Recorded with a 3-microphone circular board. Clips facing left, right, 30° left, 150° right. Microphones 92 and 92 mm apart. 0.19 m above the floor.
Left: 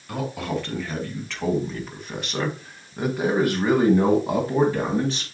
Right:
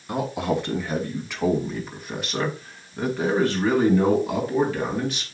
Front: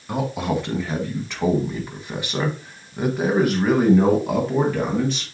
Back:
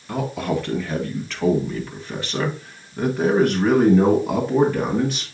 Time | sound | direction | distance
0.1 | a man speaking | 35° right | 1.9 m